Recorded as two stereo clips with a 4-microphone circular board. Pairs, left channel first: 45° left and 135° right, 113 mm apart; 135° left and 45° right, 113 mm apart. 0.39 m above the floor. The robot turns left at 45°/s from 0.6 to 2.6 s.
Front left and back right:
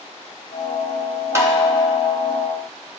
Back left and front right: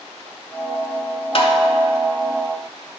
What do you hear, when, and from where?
1.4 s tapping: 165° left, 1.1 m; by 1.5 s 155° left, 1.1 m